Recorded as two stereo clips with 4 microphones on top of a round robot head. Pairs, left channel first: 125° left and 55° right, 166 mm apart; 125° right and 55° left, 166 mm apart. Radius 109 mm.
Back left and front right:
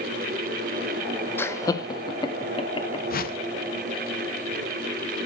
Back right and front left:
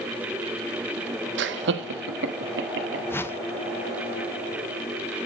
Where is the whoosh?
155° left, 0.9 m.